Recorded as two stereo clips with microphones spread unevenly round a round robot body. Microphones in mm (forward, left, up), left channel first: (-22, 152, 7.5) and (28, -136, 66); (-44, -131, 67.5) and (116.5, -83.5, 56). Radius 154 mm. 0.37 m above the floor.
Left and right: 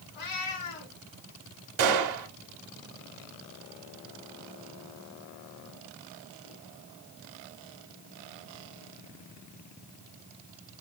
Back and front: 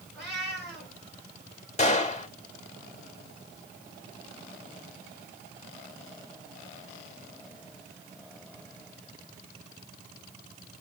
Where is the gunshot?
110° right, 0.9 m.